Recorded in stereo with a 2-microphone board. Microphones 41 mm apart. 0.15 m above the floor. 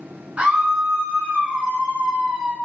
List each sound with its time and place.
0.4 s a scream: 35° right (ahead or behind), 1.2 m